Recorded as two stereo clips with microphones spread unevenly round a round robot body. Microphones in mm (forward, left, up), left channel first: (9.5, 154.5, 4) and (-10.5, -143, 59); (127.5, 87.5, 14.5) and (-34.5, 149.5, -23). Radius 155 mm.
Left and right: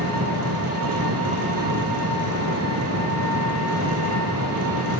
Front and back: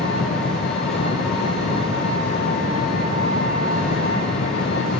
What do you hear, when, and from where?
0.0 s an engine running: 50° right, 3.5 m